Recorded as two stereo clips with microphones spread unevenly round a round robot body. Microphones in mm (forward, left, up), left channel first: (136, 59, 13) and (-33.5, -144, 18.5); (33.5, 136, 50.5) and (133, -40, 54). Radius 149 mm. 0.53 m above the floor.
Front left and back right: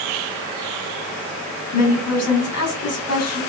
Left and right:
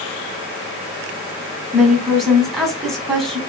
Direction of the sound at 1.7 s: 25° left.